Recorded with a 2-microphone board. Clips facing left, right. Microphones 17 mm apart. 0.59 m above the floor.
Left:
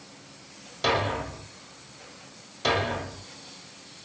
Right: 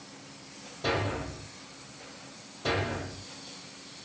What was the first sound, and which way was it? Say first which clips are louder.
A thud: left 5 dB; 60° left (ahead or behind).